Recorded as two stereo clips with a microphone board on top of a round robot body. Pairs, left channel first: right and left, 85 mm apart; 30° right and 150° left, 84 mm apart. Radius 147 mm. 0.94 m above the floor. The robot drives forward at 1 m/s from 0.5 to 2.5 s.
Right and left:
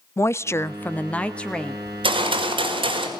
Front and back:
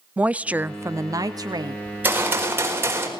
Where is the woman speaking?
140° right, 0.7 m; by 1.8 s 170° right, 1.7 m.